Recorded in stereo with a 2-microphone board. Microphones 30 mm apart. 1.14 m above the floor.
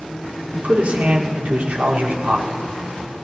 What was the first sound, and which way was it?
A man speaking, 75° right (ahead or behind).